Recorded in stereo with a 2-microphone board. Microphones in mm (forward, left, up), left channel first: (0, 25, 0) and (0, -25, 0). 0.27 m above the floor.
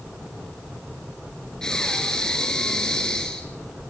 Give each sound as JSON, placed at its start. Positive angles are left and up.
{"t": 1.6, "sound": "breathing", "side_deg": 10, "distance_m": 4.0}